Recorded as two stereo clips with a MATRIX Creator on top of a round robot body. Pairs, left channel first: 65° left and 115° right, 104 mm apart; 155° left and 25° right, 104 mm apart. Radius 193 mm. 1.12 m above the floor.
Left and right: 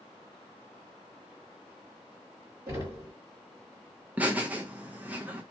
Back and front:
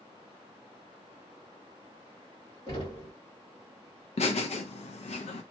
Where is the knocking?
170° right, 1.8 m.